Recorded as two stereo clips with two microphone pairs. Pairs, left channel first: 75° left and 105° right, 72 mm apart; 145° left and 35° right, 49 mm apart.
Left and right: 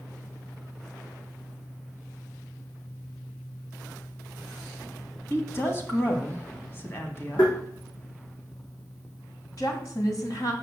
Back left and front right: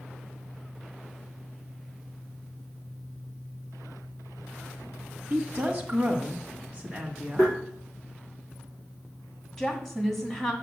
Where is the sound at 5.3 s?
25° left, 1.8 m.